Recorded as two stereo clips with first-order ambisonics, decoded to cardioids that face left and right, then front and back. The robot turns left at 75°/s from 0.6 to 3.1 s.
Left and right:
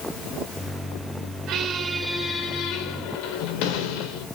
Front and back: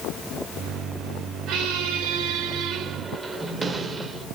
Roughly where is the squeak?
Behind right.